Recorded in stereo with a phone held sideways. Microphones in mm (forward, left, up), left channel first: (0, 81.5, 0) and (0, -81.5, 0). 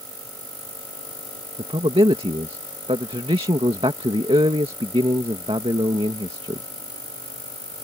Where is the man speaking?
35° right (ahead or behind).